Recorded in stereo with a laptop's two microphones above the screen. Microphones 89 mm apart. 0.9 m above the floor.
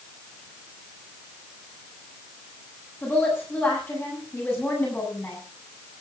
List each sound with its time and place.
3.0 s a woman speaking: 20° left (ahead or behind), 7 m